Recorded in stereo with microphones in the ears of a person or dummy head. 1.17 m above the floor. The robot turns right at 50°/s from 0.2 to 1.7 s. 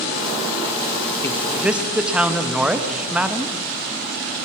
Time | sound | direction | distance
1.2 | a man speaking | 20° left (ahead or behind) | 0.9 m